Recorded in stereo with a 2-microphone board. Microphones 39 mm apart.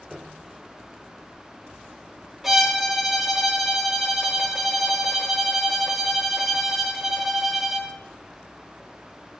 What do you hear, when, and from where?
0.1 s a piano: 10° right (ahead or behind), 0.7 m
2.4 s a violin: centre (ahead or behind), 1.1 m